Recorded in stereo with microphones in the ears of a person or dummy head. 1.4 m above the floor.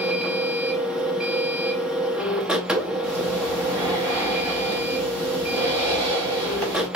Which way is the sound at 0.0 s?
5° right (ahead or behind).